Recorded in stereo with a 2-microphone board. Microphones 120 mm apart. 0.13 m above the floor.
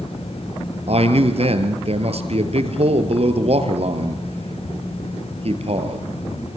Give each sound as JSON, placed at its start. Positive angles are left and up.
{"t": 0.9, "sound": "a man speaking", "side_deg": -60, "distance_m": 3.0}